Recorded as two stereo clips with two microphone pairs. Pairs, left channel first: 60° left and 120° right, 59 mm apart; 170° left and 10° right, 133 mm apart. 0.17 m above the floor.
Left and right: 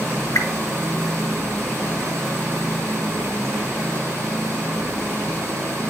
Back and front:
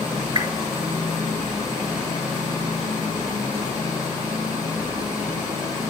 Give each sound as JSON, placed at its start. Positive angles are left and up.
{"t": 0.3, "sound": "a whoosh", "azimuth_deg": 45, "distance_m": 1.5}